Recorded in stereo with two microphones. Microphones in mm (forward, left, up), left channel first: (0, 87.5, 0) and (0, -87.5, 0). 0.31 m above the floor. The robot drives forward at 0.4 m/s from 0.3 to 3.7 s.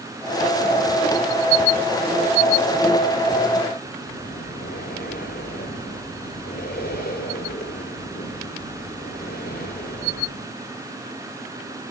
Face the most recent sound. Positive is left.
turn(degrees=65)  # may be behind; listen again after turning